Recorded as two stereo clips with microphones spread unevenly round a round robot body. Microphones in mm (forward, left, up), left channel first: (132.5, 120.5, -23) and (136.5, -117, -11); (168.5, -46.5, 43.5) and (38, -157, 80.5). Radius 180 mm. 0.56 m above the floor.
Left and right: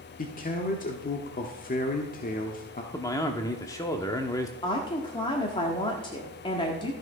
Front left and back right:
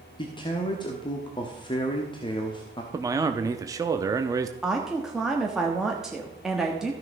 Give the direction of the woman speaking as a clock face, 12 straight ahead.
8 o'clock.